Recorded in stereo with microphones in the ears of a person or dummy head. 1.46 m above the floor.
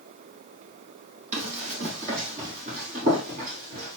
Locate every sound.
1.3 s running footsteps: 45° right (ahead or behind), 3 m